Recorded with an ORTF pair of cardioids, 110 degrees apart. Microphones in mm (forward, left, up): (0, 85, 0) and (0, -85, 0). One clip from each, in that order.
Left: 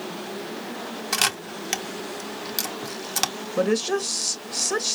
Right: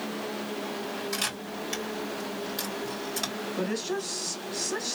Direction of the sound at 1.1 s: 60° left.